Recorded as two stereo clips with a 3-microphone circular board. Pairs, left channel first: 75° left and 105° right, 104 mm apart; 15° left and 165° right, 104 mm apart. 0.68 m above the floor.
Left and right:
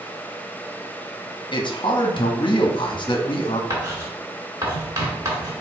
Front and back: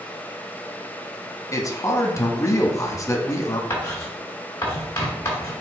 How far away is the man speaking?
About 0.7 m.